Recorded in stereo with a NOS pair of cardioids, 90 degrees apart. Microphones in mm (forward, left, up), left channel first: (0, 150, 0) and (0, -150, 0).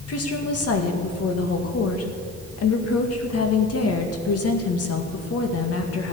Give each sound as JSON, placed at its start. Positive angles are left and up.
{"t": 0.1, "sound": "a woman speaking", "azimuth_deg": 55, "distance_m": 2.0}